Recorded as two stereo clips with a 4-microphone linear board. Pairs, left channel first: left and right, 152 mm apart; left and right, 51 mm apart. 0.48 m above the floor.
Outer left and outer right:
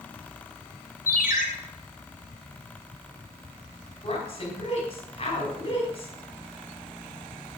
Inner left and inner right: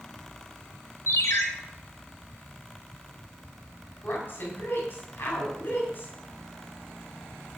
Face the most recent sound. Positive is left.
turn(degrees=40)  # may be behind; listen again after turning